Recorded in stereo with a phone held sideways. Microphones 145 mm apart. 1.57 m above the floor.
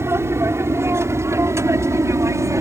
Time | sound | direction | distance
0.0 | an aircraft | 15° right (ahead or behind) | ?